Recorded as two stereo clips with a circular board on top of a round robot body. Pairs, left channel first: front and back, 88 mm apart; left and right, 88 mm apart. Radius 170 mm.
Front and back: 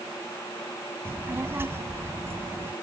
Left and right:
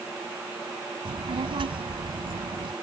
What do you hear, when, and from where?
1.1 s a child speaking: 115° right